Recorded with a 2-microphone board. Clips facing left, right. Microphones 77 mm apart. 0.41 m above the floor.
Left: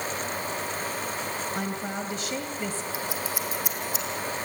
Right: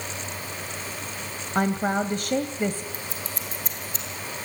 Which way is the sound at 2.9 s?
10° left (ahead or behind).